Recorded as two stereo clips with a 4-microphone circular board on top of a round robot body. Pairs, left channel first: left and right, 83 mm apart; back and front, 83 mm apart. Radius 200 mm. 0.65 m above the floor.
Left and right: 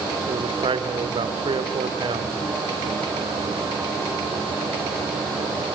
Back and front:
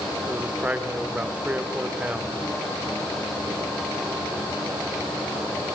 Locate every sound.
0.3 s a man speaking: 75° right, 2.5 m